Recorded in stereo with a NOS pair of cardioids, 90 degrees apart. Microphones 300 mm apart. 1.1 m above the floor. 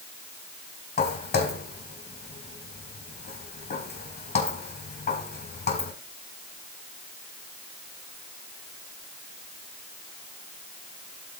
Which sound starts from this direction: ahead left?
Footsteps, at 1.0 s.